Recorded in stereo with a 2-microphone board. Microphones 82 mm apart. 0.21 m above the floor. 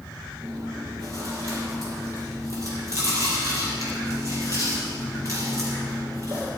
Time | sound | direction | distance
0.4 | chewing | 40° right (ahead or behind) | 5.5 m